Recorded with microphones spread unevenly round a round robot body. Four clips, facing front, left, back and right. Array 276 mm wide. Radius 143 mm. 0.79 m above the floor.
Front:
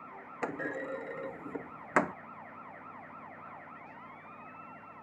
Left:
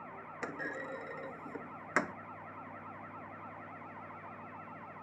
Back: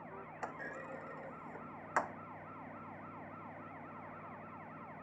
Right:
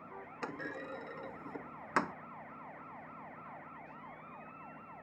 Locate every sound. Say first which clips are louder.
0.4 s a clunk: left 2 dB, front 10 dB; straight ahead